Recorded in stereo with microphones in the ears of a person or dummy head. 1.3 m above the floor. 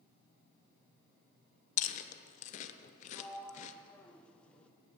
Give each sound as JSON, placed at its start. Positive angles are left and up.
{"t": 1.8, "sound": "chewing", "side_deg": 40, "distance_m": 0.9}
{"t": 3.1, "sound": "a sliding door", "side_deg": 5, "distance_m": 0.9}